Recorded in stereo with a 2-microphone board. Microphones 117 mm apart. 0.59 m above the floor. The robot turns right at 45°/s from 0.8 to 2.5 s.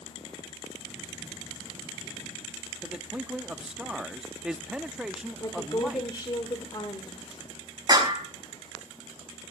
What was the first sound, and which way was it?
A man speaking, 5° right (ahead or behind).